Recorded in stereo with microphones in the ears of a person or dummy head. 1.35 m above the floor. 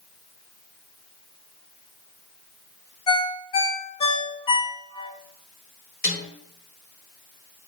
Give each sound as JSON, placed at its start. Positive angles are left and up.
{"t": 3.1, "sound": "a ringtone", "side_deg": 25, "distance_m": 0.5}
{"t": 6.0, "sound": "a snare drum", "side_deg": 60, "distance_m": 1.5}